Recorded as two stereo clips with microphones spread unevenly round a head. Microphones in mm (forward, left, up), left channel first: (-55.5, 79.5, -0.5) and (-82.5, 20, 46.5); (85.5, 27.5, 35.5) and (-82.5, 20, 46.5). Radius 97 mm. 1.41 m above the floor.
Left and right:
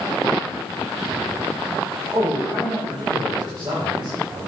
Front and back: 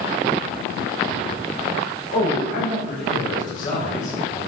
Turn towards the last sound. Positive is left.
turn(degrees=-50)